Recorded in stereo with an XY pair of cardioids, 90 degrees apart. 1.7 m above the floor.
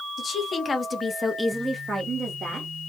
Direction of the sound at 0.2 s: 50° left.